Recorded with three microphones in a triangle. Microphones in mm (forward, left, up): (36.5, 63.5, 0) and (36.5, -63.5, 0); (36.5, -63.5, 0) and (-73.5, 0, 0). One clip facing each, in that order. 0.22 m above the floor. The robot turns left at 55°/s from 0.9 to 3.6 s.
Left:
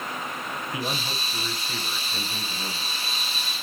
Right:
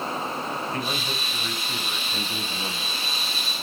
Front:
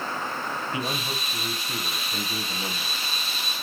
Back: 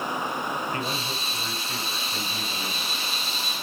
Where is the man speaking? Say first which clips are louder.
Right 1 dB, even; 30° left, 1.2 m; by 3.0 s 85° right, 1.2 m.